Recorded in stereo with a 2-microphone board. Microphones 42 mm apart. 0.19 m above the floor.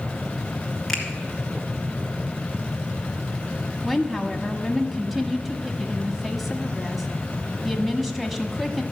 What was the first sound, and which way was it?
A finger snap, 5° left (ahead or behind).